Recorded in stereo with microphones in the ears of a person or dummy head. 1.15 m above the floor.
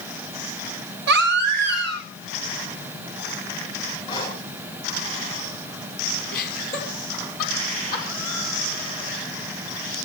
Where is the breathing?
25° left (ahead or behind), 10 m.